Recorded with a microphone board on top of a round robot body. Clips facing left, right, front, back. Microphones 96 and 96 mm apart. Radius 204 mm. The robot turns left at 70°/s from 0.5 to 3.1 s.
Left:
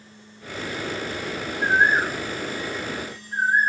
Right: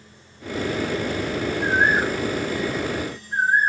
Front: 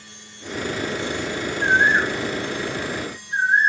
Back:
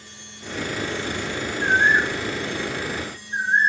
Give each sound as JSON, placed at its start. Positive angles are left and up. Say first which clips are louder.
{"t": 1.6, "sound": "a bird", "louder": "left 1 dB, front 1 dB", "azimuth_deg": 70, "distance_m": 3.5}